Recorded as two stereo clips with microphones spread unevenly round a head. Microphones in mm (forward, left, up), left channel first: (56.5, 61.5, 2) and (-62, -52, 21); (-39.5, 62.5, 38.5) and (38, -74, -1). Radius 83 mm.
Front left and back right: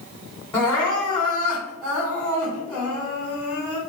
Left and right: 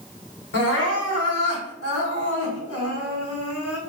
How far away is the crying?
About 1.3 m.